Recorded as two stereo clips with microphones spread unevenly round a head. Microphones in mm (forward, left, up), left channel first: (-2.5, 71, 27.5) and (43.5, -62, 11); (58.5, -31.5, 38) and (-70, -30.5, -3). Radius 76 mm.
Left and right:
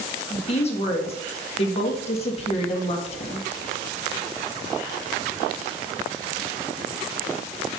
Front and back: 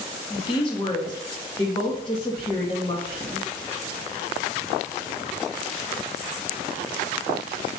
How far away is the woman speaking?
About 1.8 m.